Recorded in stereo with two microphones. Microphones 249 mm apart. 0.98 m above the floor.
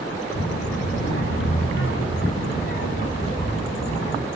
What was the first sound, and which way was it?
A child speaking, 80° left.